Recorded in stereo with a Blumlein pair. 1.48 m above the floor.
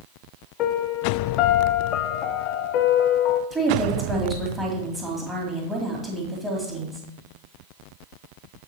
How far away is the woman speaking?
About 2 m.